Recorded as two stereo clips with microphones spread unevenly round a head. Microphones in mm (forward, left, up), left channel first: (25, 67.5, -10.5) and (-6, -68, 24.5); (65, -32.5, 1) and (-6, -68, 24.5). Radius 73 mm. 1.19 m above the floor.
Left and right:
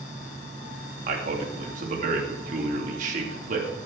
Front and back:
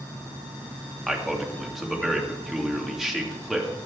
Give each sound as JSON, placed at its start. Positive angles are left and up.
{"t": 1.1, "sound": "a man speaking", "azimuth_deg": -65, "distance_m": 2.5}